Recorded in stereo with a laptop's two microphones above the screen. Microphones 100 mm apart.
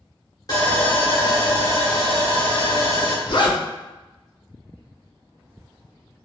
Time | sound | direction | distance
0.5 | sawing | 40° left (ahead or behind) | 1.0 m
3.3 | a zipper | 55° left (ahead or behind) | 0.6 m